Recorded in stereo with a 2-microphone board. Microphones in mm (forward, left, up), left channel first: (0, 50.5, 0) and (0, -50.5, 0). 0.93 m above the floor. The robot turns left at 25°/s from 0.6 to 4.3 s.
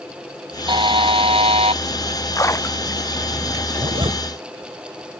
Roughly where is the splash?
Left.